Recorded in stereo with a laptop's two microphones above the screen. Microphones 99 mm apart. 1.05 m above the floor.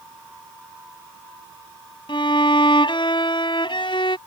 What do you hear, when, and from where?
2.1 s a violin: 55° left (ahead or behind)